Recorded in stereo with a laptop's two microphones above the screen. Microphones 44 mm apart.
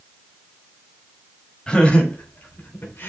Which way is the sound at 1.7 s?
25° left (ahead or behind).